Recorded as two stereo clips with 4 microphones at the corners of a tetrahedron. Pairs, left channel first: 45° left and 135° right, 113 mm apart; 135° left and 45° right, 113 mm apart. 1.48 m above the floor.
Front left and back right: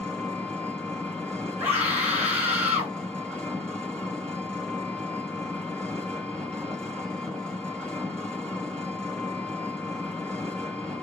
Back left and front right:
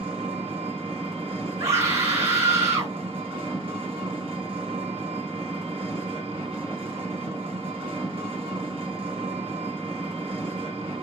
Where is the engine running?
35° right, 2.0 m.